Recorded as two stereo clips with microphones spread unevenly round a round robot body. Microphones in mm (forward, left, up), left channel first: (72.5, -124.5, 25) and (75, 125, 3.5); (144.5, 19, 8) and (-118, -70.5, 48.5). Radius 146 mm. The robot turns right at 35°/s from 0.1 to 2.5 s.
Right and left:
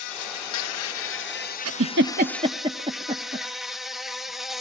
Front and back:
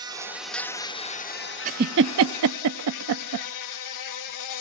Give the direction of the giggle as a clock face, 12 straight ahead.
7 o'clock.